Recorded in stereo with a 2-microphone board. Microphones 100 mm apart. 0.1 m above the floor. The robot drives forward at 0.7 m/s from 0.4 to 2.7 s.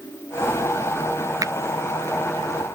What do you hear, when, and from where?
1.4 s a finger snap: 35° right (ahead or behind)